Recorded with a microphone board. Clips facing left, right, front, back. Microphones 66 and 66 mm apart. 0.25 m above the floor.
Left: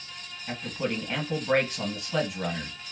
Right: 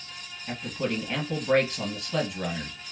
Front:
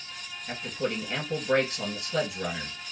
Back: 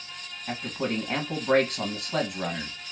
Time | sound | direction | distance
0.5 | a man speaking | 175° left | 1.6 m